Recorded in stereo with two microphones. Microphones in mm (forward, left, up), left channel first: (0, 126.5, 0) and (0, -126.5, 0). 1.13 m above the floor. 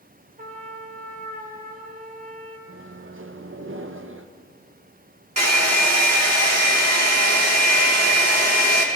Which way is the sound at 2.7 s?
55° right (ahead or behind).